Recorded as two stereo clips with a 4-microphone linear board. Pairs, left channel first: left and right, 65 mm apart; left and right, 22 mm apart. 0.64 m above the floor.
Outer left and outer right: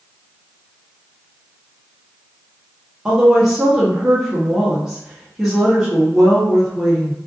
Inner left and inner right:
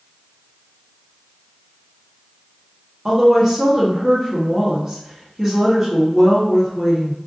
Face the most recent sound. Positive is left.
turn(degrees=-10)  # may be behind; listen again after turning